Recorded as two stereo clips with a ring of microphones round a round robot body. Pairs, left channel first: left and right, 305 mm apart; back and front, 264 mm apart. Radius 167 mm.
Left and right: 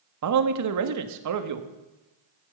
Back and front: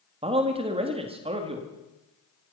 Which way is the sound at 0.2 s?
70° right.